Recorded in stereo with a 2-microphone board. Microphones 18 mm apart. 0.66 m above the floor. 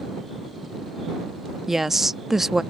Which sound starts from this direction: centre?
A woman speaking, at 1.7 s.